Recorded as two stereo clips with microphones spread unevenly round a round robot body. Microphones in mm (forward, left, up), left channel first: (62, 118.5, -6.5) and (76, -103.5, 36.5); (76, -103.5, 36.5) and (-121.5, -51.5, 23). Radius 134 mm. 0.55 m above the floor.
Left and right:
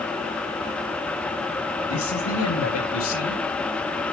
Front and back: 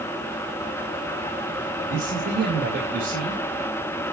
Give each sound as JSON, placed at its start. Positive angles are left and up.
{"t": 1.9, "sound": "a man speaking", "azimuth_deg": 110, "distance_m": 2.5}